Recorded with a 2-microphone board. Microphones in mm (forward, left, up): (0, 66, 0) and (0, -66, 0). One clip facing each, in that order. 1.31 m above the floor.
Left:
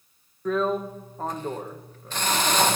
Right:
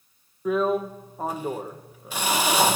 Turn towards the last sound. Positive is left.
turn(degrees=-10)  # may be behind; listen again after turning